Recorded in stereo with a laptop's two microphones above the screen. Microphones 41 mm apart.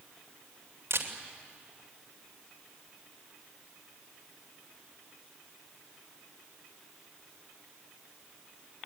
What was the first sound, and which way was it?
A camera shutter, 85° right.